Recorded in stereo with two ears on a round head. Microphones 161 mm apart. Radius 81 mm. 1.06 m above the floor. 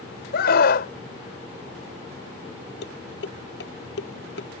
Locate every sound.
0.3 s a scream: 60° left (ahead or behind)
2.8 s dishes clattering: 65° left (ahead or behind)